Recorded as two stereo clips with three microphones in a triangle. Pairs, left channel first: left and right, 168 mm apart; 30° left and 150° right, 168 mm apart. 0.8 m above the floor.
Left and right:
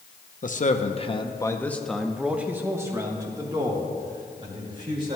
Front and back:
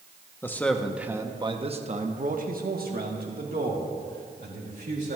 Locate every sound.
0.4 s a man speaking: 100° left, 0.9 m; by 5.2 s 150° right, 2.5 m